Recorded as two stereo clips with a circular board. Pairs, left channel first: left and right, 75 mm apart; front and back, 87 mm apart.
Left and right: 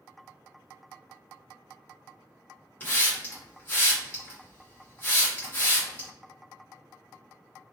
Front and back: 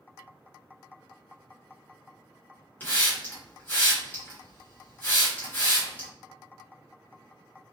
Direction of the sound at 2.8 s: 45° left.